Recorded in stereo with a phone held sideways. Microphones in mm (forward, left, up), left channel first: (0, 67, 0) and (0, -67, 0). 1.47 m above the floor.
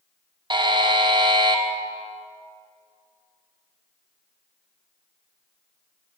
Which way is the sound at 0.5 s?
35° right (ahead or behind).